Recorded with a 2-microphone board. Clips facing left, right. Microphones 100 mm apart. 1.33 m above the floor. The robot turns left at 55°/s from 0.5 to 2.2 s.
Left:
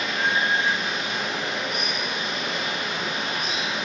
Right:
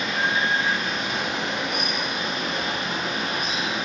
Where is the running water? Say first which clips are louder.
Even; 40° right, 1.0 m; by 3.9 s 130° right, 1.0 m.